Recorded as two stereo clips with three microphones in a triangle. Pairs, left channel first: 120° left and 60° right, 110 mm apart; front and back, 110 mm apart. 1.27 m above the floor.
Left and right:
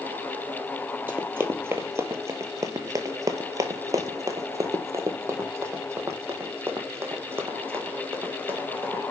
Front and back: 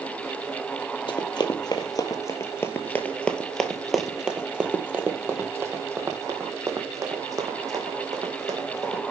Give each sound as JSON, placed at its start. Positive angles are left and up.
{"t": 1.1, "sound": "running footsteps", "azimuth_deg": 5, "distance_m": 1.8}